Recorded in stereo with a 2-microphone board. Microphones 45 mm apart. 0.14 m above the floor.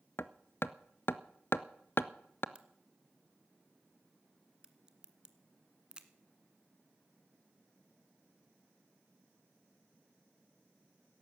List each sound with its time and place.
0.2 s hammering: 55° left (ahead or behind), 0.6 m
2.5 s a crack: 20° right (ahead or behind), 1.4 m